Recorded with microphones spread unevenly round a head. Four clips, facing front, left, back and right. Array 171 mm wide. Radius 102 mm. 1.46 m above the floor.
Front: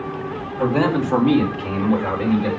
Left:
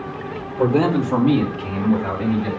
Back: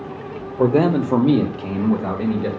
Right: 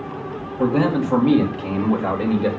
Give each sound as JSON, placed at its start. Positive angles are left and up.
{"t": 0.6, "sound": "a man speaking", "azimuth_deg": 165, "distance_m": 2.5}